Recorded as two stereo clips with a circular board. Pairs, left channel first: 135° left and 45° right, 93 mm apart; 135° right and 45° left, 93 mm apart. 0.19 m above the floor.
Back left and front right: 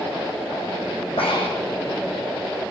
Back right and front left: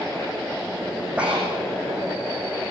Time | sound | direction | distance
1.2 | breathing | 120° left | 7 m